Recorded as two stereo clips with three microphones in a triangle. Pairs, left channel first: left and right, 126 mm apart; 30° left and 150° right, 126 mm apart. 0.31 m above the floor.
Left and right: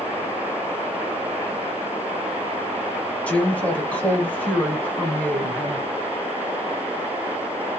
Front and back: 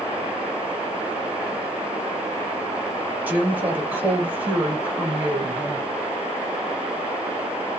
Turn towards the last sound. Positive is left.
turn(degrees=155)